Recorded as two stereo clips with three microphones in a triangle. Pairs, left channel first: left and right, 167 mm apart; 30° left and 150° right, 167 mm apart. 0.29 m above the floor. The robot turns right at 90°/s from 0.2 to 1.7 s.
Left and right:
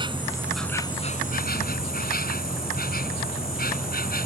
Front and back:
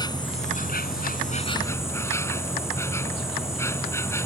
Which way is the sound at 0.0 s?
30° right.